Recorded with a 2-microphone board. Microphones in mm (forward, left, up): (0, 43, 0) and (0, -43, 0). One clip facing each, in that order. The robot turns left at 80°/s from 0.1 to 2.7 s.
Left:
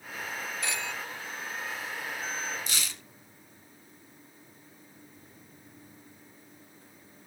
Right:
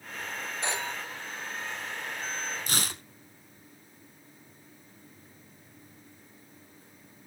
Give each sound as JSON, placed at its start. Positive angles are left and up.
{"t": 0.6, "sound": "a phone ringing", "side_deg": -30, "distance_m": 0.8}
{"t": 2.7, "sound": "tearing paper", "side_deg": -50, "distance_m": 0.5}